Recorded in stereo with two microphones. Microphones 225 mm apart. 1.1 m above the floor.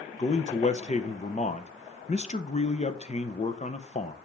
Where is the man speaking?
30° left (ahead or behind), 0.7 m.